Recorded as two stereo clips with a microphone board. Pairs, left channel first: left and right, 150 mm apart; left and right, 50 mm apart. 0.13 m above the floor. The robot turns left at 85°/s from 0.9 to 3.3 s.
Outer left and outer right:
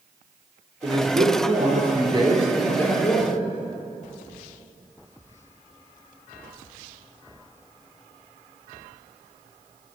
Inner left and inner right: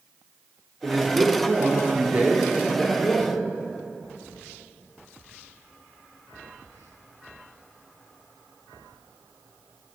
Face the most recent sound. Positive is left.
turn(degrees=120)